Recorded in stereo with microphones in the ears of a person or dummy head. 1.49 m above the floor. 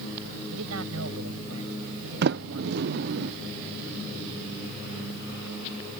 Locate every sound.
0.5 s a man speaking: 75° right (ahead or behind)
2.2 s a sliding door: 60° right (ahead or behind)